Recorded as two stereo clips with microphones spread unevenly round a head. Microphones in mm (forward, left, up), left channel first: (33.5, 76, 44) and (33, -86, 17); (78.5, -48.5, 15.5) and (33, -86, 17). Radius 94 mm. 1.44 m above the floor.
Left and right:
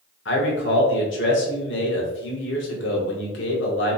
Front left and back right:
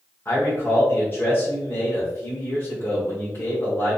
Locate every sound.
0.2 s a man speaking: 115° left, 1.0 m